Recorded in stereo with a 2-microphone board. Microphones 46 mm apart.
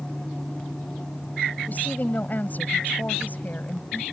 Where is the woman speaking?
40° left (ahead or behind).